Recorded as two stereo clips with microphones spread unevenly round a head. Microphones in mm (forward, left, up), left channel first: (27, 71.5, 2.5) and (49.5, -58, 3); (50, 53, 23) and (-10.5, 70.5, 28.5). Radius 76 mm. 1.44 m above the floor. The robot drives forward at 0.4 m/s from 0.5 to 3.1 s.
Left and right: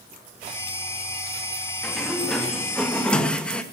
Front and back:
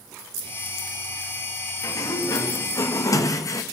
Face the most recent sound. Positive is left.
turn(degrees=20)